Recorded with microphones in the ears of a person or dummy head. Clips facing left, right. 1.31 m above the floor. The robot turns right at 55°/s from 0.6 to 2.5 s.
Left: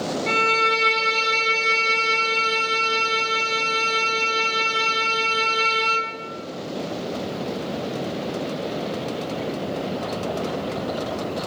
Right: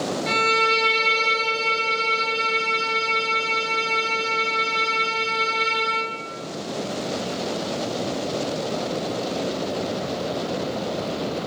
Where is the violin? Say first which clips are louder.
Even; 10° right, 0.6 m; by 6.1 s 95° left, 0.6 m.